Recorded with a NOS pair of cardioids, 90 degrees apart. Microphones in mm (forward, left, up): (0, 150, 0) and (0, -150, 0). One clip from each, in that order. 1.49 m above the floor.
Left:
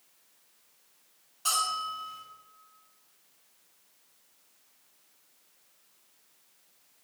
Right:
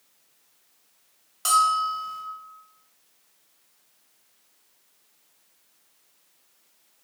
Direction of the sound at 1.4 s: 65° right.